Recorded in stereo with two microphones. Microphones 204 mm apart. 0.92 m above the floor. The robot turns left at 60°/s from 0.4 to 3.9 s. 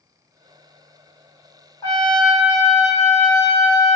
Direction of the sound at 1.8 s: 20° left.